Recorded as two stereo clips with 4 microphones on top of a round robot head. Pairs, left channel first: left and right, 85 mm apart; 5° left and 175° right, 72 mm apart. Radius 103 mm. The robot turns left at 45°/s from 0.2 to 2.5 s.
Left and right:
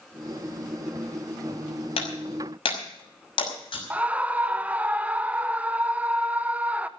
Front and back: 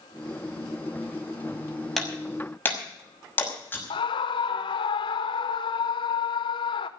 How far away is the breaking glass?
About 6 m.